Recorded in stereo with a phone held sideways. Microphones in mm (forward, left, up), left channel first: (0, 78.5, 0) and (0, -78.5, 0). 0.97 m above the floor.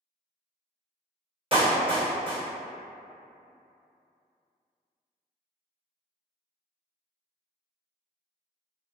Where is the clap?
35° right (ahead or behind), 1.2 m.